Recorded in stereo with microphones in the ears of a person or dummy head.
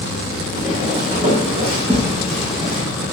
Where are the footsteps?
30° right (ahead or behind), 4.5 m; by 2.8 s 50° right (ahead or behind), 5 m.